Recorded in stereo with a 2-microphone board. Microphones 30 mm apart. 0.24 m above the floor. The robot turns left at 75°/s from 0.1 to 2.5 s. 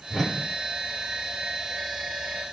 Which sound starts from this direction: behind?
A whoosh, at 0.1 s.